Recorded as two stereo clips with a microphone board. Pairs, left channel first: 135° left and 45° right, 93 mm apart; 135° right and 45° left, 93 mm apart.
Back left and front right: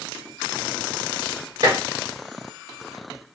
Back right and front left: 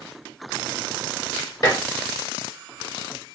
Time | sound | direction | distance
1.6 | dishes clattering | 90° right | 2.5 m